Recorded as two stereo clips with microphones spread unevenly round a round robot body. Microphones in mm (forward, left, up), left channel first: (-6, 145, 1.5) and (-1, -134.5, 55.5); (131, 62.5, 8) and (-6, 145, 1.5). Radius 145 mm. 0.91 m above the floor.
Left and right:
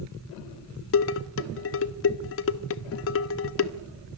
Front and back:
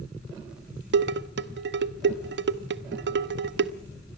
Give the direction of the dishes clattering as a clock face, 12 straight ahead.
7 o'clock.